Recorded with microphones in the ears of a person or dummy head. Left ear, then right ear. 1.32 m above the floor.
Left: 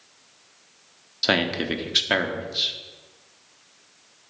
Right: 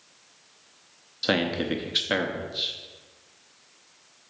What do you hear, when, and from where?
1.2 s a man speaking: 10° left (ahead or behind), 0.6 m